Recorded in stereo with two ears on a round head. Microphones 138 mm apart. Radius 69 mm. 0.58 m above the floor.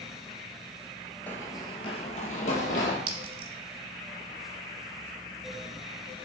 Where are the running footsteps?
10° left (ahead or behind), 0.5 m; by 3.0 s 55° left (ahead or behind), 1.3 m.